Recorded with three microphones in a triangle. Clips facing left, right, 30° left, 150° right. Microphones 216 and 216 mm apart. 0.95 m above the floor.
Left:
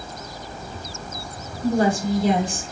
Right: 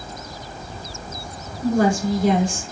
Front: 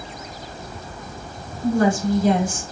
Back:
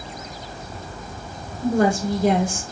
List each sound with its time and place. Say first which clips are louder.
1.6 s a woman speaking: right 1 dB, front 1 dB; 130° right, 2.5 m